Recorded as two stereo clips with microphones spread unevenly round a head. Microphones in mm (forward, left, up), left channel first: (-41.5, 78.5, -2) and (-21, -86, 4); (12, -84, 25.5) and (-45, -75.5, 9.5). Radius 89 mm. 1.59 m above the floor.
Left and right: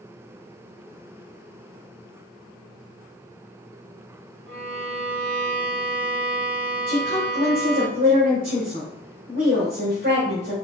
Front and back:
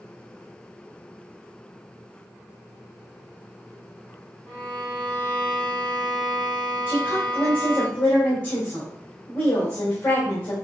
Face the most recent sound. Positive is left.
turn(degrees=-35)